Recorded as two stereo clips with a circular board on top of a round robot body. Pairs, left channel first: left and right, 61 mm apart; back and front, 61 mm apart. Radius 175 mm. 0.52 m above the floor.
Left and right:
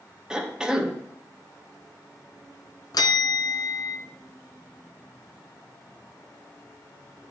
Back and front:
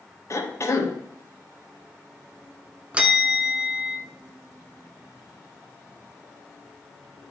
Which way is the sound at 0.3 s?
165° right.